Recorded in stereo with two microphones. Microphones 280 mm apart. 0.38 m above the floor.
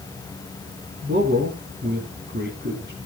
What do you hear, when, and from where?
1.0 s a man speaking: 35° right (ahead or behind), 3 m